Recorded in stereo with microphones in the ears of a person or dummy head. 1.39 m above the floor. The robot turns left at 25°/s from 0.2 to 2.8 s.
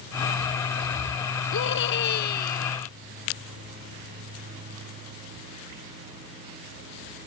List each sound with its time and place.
1.5 s a scream: 70° left; by 2.9 s 35° left